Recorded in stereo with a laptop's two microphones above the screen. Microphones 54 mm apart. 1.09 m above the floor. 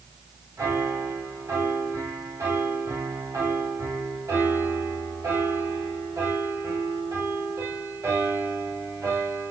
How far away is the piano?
About 3 m.